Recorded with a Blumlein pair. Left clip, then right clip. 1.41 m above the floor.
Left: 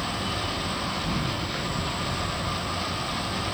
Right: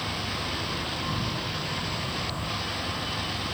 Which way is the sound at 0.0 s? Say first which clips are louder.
Left 2 dB; 55° left.